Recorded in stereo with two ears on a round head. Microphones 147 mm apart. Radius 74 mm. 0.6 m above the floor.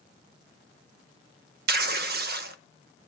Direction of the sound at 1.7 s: 65° right (ahead or behind).